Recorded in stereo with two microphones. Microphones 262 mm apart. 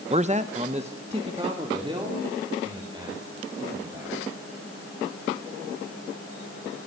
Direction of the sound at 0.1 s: 25° right (ahead or behind).